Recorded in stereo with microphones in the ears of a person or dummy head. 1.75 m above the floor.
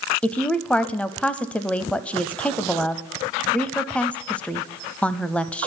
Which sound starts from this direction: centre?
A woman speaking, at 0.2 s.